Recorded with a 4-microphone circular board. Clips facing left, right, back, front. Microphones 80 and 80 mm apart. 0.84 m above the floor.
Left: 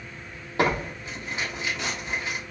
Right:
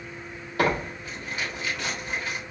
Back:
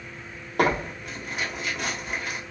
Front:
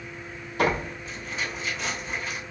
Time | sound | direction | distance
0.6 | tearing paper | 155° left | 1.5 m